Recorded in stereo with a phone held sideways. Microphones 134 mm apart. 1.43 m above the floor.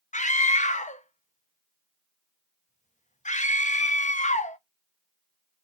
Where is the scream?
65° left (ahead or behind), 0.7 m.